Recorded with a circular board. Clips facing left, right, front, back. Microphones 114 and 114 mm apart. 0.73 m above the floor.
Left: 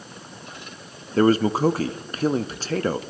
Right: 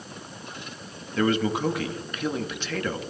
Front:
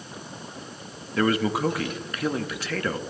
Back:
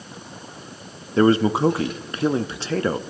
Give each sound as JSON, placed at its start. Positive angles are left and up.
{"t": 1.2, "sound": "a man speaking", "azimuth_deg": 130, "distance_m": 0.6}